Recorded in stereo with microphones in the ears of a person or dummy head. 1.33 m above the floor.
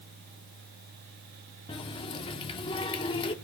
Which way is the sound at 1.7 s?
25° left (ahead or behind).